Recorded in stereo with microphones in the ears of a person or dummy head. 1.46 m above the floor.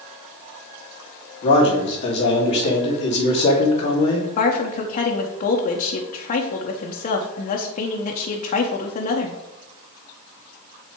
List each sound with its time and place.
1.4 s a man speaking: 30° left (ahead or behind), 2.5 m
4.4 s a woman speaking: 40° left (ahead or behind), 1.0 m